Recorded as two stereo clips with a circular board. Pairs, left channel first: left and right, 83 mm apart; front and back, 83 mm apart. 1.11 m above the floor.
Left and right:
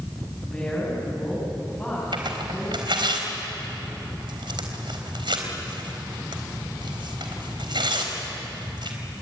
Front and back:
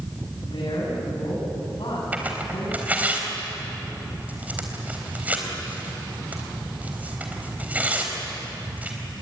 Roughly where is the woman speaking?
Ahead.